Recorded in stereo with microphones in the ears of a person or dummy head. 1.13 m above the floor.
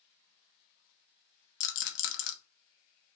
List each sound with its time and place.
1.6 s a rattle: 55° left (ahead or behind), 1.0 m